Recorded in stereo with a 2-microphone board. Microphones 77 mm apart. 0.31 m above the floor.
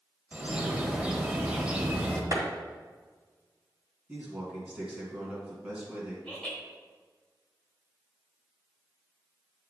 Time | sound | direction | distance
0.3 | a bird | 15° right (ahead or behind) | 1.0 m
2.3 | a clap | 45° right (ahead or behind) | 1.9 m
4.1 | a man speaking | 15° right (ahead or behind) | 2.5 m
6.2 | laughter | 10° left (ahead or behind) | 1.4 m